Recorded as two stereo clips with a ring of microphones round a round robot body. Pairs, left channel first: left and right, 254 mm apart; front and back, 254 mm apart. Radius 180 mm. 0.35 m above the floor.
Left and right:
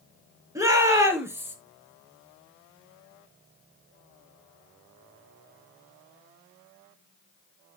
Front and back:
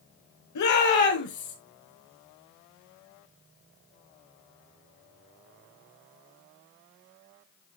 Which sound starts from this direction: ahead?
A shout, at 0.6 s.